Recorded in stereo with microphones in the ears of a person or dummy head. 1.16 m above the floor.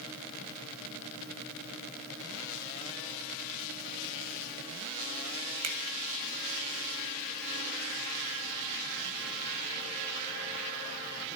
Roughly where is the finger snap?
Right.